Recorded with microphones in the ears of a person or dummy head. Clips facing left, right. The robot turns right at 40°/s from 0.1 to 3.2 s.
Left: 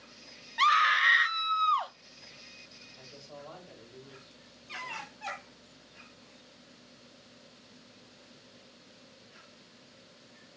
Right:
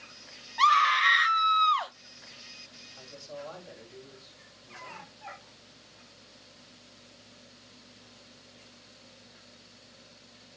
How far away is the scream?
About 0.5 m.